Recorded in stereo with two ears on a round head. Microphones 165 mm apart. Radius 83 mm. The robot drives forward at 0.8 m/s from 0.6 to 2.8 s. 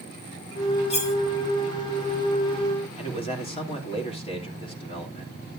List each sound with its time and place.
0.9 s cutlery clinking: 40° left (ahead or behind), 2.5 m; by 1.1 s 35° left (ahead or behind), 2.5 m
3.0 s a man speaking: 30° left (ahead or behind), 3 m